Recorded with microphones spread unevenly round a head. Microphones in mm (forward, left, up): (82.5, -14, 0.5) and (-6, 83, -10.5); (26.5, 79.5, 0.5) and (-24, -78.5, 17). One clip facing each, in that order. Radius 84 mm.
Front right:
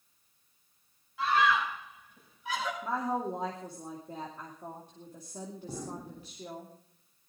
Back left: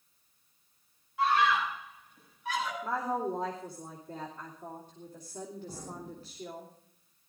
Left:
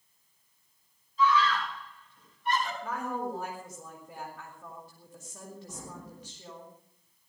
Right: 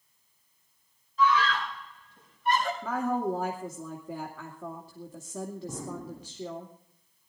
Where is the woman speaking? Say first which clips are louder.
Even, right 5 dB; 125° right, 2.5 m.